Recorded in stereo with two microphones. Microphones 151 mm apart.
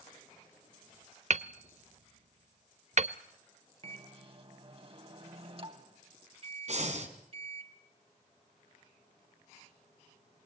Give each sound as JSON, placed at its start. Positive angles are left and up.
{"t": 1.3, "sound": "hammering", "side_deg": -55, "distance_m": 0.6}
{"t": 3.8, "sound": "a microwave", "side_deg": -40, "distance_m": 2.0}
{"t": 6.7, "sound": "breathing", "side_deg": -55, "distance_m": 2.5}